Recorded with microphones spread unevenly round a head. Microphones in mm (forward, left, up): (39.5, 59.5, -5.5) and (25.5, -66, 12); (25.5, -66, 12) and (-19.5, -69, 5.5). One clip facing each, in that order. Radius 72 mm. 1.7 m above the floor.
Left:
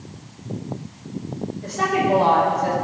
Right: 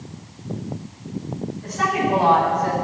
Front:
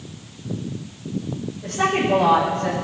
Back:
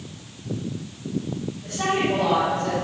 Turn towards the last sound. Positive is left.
turn(degrees=30)